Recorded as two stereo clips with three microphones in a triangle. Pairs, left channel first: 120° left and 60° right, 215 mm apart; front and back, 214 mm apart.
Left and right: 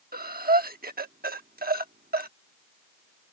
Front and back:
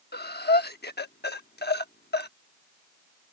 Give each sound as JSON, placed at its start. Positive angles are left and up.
{"t": 0.1, "sound": "breathing", "azimuth_deg": -25}